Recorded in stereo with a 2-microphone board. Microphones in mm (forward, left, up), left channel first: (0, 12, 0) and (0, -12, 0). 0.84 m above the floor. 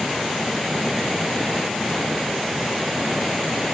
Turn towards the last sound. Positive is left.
No sound to turn to.